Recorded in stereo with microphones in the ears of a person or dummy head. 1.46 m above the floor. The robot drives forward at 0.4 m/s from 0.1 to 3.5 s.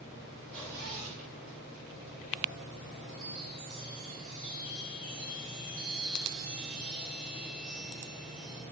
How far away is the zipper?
About 4.5 m.